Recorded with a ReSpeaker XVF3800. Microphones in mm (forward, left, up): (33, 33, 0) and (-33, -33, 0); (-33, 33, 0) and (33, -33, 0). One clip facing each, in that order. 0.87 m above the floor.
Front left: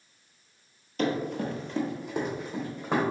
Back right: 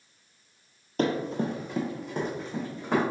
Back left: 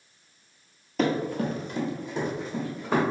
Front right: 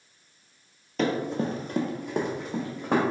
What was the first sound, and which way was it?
Running footsteps, 140° right.